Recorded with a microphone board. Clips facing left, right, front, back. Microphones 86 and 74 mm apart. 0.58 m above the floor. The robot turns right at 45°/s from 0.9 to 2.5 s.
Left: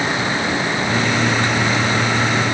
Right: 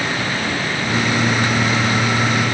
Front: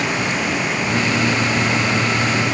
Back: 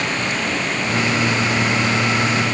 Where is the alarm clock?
No alarm clock in this recording.